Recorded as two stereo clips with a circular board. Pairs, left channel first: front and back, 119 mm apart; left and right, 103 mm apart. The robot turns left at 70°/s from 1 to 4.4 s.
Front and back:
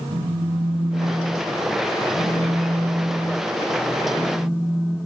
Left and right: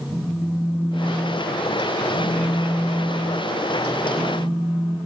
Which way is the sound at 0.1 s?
175° left.